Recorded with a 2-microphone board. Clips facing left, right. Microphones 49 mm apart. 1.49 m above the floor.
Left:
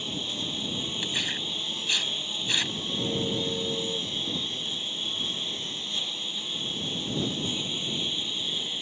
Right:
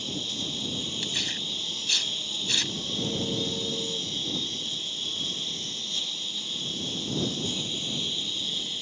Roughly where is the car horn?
Centre.